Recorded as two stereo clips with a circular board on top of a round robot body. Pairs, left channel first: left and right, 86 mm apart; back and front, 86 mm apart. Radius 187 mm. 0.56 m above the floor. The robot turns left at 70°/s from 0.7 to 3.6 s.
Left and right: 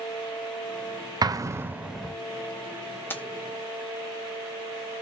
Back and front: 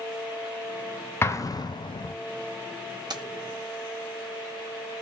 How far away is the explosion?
About 0.8 m.